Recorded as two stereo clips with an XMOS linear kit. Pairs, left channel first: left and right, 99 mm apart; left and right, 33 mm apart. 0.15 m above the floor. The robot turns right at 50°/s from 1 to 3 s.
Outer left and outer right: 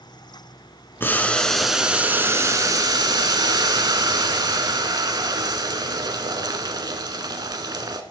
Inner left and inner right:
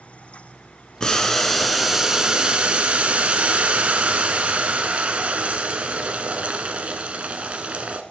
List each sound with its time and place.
1.0 s boiling: 150° left, 0.9 m; by 8.0 s 110° right, 0.9 m